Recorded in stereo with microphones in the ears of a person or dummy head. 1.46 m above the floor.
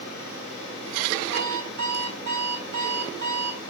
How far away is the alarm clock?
About 4 m.